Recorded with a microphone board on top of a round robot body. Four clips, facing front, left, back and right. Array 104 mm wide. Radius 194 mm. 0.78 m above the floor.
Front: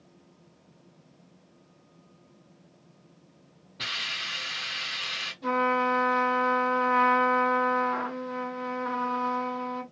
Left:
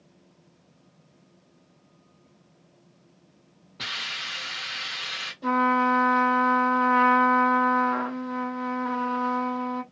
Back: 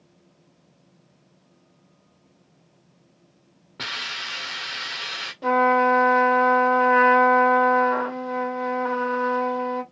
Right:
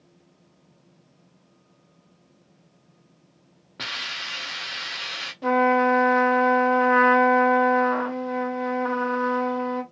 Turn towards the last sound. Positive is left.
turn(degrees=-130)